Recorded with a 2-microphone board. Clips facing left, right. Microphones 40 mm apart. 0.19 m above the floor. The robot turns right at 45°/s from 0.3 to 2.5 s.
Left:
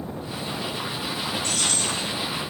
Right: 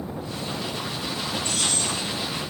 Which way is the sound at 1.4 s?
80° left.